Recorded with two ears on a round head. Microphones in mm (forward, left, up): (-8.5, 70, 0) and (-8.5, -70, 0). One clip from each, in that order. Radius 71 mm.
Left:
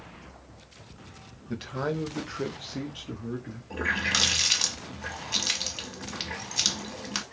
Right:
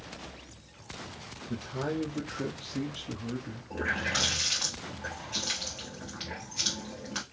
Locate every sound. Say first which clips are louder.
1.5 s a man speaking: left 3 dB; 55° left (ahead or behind), 0.8 m; by 3.6 s 10° right (ahead or behind), 0.9 m
3.7 s a running tap: left 4 dB; 70° left (ahead or behind), 0.8 m